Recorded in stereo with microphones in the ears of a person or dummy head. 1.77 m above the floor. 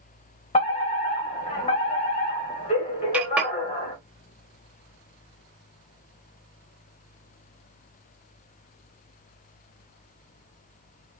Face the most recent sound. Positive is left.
turn(degrees=-10)  # may be behind; listen again after turning